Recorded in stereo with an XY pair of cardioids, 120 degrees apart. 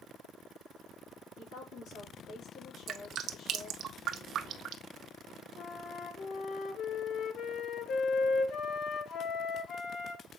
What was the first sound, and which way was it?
A woman speaking, 65° left.